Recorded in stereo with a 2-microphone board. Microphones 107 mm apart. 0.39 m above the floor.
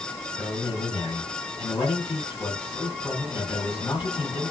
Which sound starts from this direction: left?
A man speaking, at 0.4 s.